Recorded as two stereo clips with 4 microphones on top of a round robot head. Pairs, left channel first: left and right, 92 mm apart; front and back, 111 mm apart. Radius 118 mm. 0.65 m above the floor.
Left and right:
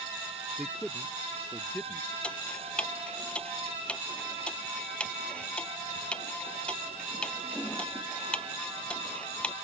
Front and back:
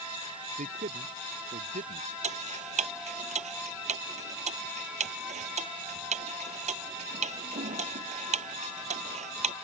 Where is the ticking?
170° left.